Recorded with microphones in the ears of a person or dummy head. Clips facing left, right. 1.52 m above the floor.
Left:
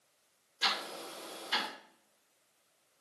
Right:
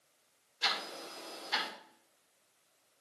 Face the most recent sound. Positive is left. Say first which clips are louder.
# left 1 dB
turn(degrees=55)  # may be behind; listen again after turning